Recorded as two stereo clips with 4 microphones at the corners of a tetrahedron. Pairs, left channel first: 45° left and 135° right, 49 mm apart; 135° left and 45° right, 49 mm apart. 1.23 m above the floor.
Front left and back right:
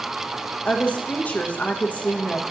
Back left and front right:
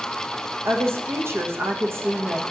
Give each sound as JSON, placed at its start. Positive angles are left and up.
{"t": 0.7, "sound": "a woman speaking", "azimuth_deg": -15, "distance_m": 0.9}